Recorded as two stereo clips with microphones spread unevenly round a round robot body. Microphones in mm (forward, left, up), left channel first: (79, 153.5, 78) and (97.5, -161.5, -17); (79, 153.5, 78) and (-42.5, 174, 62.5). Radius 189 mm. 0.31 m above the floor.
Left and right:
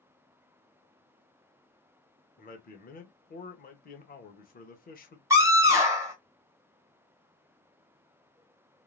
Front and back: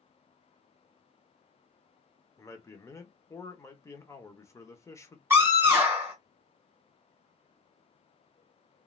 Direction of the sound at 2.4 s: 30° left.